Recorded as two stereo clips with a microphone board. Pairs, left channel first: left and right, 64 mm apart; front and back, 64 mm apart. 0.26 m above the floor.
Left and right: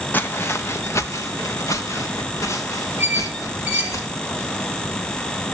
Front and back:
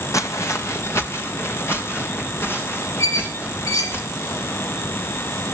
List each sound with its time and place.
0.1 s footsteps: 30° left, 0.7 m; by 4.0 s 55° left, 5.5 m
3.0 s a squeak: 15° right, 5 m